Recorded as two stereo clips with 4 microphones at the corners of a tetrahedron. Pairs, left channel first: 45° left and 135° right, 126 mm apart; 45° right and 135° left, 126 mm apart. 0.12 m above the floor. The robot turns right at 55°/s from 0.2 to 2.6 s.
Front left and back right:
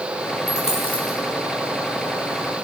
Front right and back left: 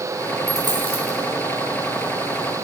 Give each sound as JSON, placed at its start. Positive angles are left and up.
{"t": 0.5, "sound": "a dropped coin", "azimuth_deg": 70, "distance_m": 4.0}